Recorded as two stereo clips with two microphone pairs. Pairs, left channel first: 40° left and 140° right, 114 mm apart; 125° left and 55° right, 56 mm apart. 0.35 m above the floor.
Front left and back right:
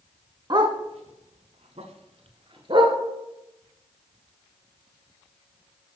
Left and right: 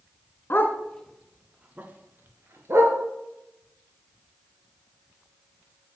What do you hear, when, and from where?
0.5 s a dog barking: 175° left, 0.8 m; by 3.0 s 90° right, 1.4 m